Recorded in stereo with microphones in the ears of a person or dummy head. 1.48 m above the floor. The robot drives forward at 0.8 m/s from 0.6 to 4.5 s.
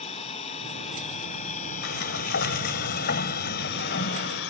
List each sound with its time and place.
0.0 s an engine running: 30° left (ahead or behind); by 4.5 s 65° left (ahead or behind)
1.8 s a sliding door: 65° left (ahead or behind); by 4.4 s 50° left (ahead or behind)